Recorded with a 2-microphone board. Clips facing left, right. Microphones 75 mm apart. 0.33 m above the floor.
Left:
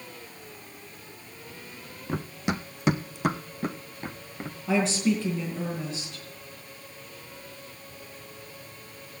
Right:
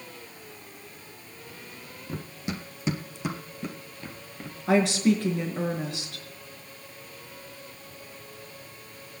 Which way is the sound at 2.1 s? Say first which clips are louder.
Left 5 dB; 65° left (ahead or behind).